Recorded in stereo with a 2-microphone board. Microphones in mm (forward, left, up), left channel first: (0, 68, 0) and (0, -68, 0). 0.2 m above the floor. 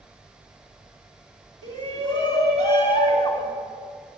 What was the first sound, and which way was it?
A shout, 35° left (ahead or behind).